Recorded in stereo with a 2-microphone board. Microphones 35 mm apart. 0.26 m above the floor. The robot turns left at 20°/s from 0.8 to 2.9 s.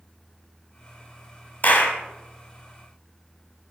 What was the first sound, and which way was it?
A clap, 45° left (ahead or behind).